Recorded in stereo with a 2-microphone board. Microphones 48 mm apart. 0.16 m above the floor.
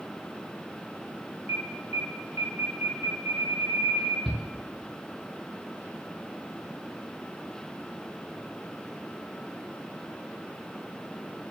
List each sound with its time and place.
1.5 s an alarm: 70° right (ahead or behind), 4.5 m
4.2 s a shout: centre (ahead or behind), 1.6 m